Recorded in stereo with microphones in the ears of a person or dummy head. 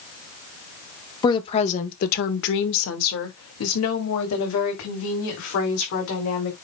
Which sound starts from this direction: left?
A woman speaking, at 1.2 s.